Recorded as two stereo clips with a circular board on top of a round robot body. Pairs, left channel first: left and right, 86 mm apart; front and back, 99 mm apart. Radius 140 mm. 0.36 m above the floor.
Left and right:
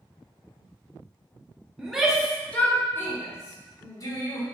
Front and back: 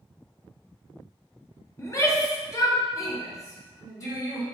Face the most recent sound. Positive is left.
turn(degrees=55)